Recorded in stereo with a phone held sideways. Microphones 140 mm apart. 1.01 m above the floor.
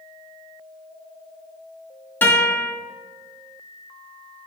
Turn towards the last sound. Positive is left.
turn(degrees=15)  # may be behind; listen again after turning